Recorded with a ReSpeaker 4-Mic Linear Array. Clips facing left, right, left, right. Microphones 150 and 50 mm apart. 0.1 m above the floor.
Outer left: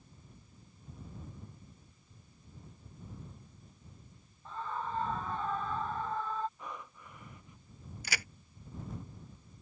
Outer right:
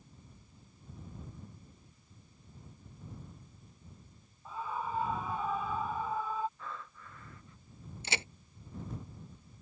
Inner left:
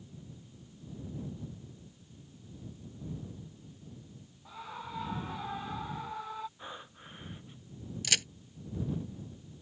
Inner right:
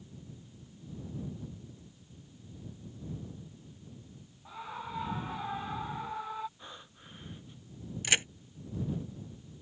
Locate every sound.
4.5 s a scream: 10° right (ahead or behind)
6.6 s breathing: 20° left (ahead or behind)
8.0 s a crack: 25° right (ahead or behind)